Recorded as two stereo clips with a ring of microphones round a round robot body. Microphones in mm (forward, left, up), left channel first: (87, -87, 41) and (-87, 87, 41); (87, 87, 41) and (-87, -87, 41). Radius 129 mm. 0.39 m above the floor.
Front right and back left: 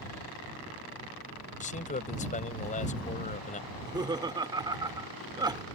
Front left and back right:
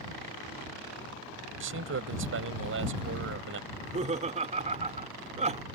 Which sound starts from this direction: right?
A man speaking, at 1.6 s.